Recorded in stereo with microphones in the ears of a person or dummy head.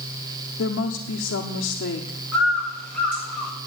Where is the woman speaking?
85° left, 1.1 m.